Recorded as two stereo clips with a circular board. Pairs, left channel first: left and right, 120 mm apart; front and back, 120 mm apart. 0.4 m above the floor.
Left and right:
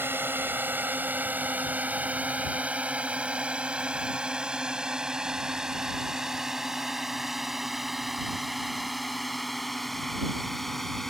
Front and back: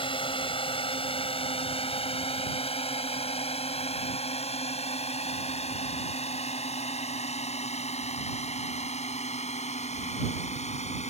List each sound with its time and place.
0.0 s a drone: 25° right; by 11.1 s 5° left